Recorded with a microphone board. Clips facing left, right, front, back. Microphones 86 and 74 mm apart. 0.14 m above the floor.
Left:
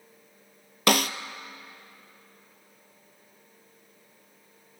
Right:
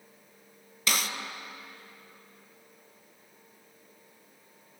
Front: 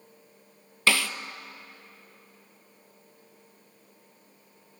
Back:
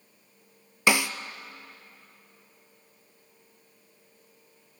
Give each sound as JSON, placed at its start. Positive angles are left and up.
{"t": 0.9, "sound": "a snare drum", "azimuth_deg": 110, "distance_m": 0.7}